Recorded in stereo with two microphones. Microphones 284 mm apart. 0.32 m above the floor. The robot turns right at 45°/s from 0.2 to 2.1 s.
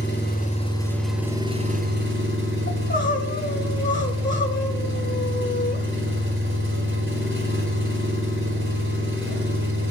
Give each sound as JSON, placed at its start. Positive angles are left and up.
{"t": 0.0, "sound": "an engine running", "azimuth_deg": 140, "distance_m": 5.0}
{"t": 2.7, "sound": "crying", "side_deg": 40, "distance_m": 1.9}